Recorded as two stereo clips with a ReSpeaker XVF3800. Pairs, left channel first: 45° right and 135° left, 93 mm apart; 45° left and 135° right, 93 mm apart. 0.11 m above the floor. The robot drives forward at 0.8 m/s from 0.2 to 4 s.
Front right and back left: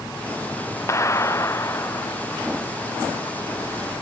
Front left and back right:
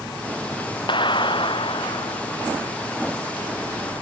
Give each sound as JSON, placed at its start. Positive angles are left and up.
{"t": 0.9, "sound": "a clap", "azimuth_deg": 15}